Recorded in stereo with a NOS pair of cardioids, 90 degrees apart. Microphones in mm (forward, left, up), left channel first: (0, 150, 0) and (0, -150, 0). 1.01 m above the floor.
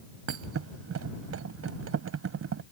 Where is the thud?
50° right.